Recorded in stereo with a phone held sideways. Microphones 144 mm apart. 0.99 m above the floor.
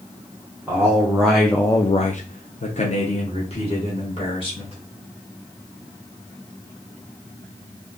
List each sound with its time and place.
0.7 s a man speaking: 15° right (ahead or behind), 1.3 m; by 4.8 s 40° left (ahead or behind), 2.5 m